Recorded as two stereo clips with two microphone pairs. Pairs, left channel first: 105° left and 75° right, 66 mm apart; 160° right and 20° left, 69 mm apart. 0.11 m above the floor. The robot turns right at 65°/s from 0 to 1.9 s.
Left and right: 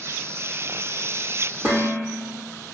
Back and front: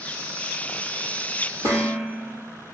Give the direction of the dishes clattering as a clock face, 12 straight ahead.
12 o'clock.